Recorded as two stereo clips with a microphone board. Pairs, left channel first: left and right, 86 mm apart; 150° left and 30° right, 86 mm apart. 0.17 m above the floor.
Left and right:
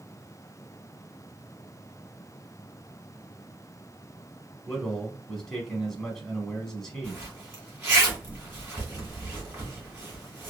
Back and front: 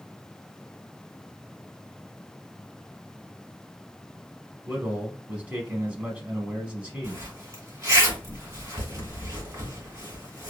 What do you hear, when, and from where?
4.7 s a man speaking: 15° left, 1.0 m
7.0 s a zipper: 50° right, 1.8 m